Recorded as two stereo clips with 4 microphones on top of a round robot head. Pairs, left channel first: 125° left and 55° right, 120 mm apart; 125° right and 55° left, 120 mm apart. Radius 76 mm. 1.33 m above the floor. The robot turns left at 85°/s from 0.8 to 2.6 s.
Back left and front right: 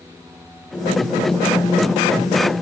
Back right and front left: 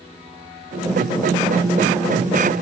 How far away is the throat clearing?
I don't hear throat clearing.